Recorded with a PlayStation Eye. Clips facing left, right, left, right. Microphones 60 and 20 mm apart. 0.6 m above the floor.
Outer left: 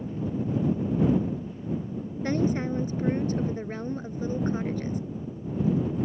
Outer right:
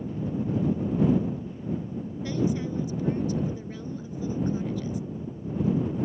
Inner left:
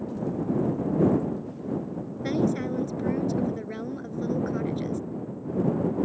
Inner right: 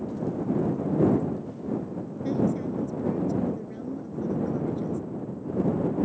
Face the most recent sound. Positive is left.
turn(degrees=45)  # may be behind; listen again after turning